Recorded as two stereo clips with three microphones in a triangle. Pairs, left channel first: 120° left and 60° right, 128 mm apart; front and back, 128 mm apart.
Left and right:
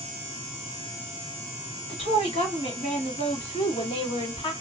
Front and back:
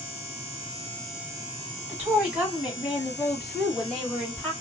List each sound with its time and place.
1.9 s a woman speaking: 105° left, 2.5 m; by 4.5 s 80° left, 3 m